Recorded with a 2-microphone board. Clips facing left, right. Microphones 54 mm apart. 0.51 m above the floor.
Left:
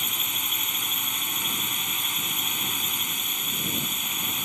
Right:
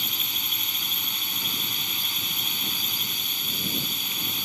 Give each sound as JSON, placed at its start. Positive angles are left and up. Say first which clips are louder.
{"t": 0.0, "sound": "a drone", "louder": "even", "side_deg": 15}